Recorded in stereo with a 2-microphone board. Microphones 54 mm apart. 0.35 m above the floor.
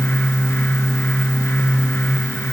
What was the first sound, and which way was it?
Only background noise.